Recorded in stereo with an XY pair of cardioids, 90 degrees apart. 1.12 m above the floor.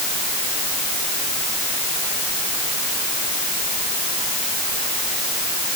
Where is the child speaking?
No child speaking in this recording.